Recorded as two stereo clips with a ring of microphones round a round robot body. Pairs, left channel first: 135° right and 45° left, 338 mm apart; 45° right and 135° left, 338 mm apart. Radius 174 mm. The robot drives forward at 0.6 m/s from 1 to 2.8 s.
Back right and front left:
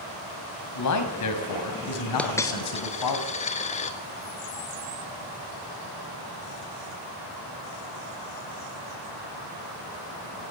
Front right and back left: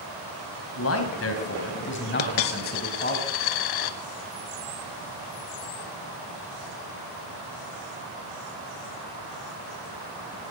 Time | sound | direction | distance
0.8 | a man speaking | 95° right | 4.5 m
2.2 | a dropped coin | 50° right | 1.3 m